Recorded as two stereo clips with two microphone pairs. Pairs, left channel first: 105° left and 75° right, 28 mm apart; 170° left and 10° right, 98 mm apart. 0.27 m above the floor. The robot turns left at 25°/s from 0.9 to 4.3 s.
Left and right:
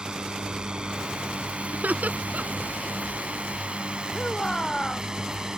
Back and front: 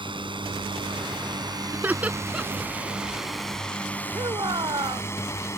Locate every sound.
0.0 s a drone: 20° right; by 5.6 s 135° right
1.7 s laughter: 75° right; by 2.7 s 100° right
4.1 s a shout: 35° left